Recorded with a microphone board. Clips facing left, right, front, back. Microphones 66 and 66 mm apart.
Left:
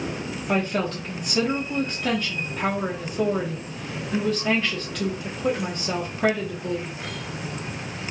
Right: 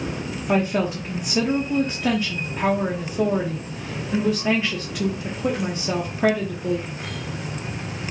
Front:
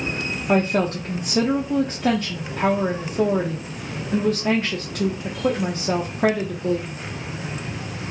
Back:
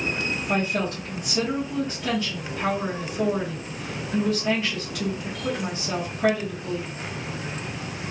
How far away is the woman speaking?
About 0.8 m.